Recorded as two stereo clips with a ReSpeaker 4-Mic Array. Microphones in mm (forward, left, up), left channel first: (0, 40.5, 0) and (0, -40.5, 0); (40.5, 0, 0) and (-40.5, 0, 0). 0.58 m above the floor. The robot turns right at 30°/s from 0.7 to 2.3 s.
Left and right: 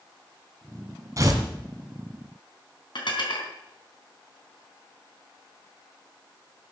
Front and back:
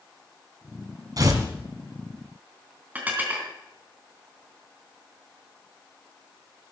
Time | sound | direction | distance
1.2 | tearing paper | 140° right | 2 m
3.0 | dishes clattering | 110° left | 3 m